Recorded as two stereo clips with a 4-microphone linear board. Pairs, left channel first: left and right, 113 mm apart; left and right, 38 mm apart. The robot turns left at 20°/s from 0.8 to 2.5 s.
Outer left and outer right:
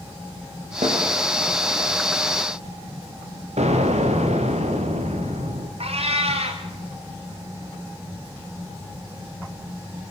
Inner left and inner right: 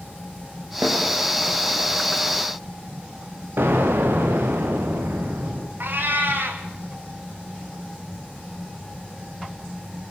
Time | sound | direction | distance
0.8 | a snare drum | 75° right (ahead or behind) | 8.5 m
3.6 | an explosion | 75° right (ahead or behind) | 4.5 m
5.8 | a cat meowing | 60° right (ahead or behind) | 4.5 m